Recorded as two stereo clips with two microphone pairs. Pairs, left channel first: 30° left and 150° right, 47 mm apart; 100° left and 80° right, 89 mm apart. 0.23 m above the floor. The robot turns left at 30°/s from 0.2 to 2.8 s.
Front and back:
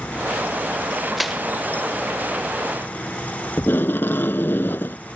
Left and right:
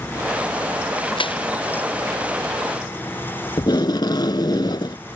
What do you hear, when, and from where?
1.2 s crushing: 125° left; by 1.4 s 115° left
3.6 s tape being pulled: 65° left